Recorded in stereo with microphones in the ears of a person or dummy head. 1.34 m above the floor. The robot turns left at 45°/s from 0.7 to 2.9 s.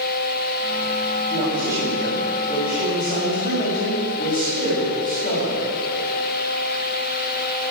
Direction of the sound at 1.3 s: 145° right.